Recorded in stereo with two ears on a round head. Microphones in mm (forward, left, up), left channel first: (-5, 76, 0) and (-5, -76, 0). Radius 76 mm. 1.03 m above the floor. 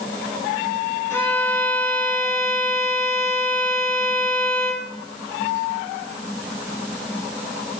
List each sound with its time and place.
1.1 s a violin: 15° left (ahead or behind), 0.9 m